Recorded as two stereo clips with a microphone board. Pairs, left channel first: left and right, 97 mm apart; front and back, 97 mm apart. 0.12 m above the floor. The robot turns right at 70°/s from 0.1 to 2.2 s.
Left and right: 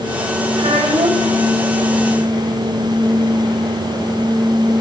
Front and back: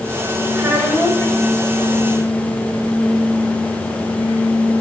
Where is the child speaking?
125° right, 4.5 m; by 1.4 s 70° right, 4.5 m.